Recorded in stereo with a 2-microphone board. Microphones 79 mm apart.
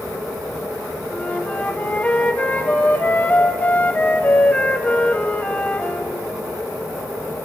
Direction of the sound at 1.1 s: 20° left (ahead or behind).